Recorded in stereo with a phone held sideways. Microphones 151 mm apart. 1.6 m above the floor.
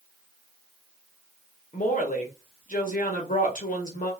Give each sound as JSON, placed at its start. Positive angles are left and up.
{"t": 1.7, "sound": "a woman speaking", "side_deg": 60, "distance_m": 1.2}